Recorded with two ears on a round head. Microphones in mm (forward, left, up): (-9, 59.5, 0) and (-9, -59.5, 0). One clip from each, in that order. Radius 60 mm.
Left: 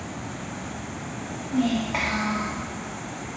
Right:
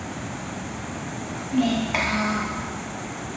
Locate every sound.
1.5 s a child speaking: 25° right (ahead or behind), 0.8 m